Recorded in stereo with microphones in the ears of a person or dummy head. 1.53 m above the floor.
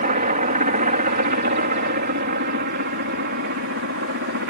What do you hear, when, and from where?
0.0 s a helicopter: 40° right (ahead or behind); by 4.5 s 60° right (ahead or behind)